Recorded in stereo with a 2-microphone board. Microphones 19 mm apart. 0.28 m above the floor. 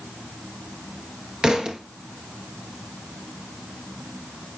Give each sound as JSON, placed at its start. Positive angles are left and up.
{"t": 1.4, "sound": "a thud", "side_deg": -35, "distance_m": 1.3}